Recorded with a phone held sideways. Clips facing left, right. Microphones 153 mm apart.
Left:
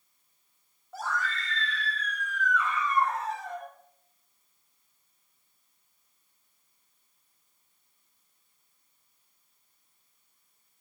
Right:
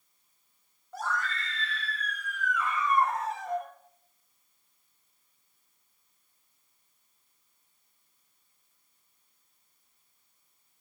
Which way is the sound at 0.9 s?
5° left (ahead or behind).